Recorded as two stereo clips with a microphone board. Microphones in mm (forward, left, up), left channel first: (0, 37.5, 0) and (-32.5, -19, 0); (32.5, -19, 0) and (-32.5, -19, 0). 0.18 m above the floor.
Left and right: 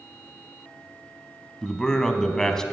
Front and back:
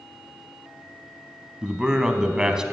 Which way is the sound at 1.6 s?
125° left.